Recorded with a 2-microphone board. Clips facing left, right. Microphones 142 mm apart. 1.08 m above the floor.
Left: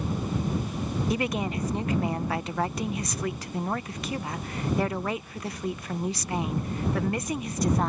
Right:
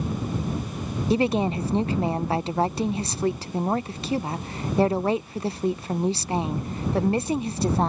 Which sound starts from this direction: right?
A woman speaking, at 1.1 s.